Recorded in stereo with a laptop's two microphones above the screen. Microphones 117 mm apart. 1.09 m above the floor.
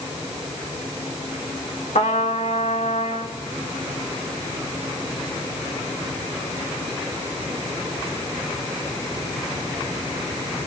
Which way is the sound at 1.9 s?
75° left (ahead or behind).